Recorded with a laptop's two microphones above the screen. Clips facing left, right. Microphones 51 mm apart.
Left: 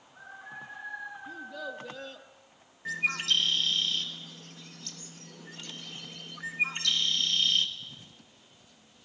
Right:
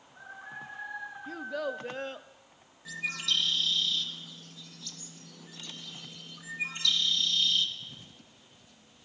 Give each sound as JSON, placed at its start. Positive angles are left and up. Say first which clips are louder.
{"t": 1.3, "sound": "a child speaking", "louder": "right 9 dB", "side_deg": -65, "distance_m": 0.8}
{"t": 2.9, "sound": "a bird", "louder": "left 4 dB", "side_deg": 45, "distance_m": 1.3}